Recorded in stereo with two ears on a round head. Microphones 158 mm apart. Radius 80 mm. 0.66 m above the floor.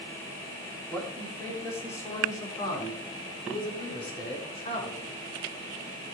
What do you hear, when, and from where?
0.9 s a man speaking: 10° left (ahead or behind), 4.5 m; by 5.2 s 40° left (ahead or behind), 6.5 m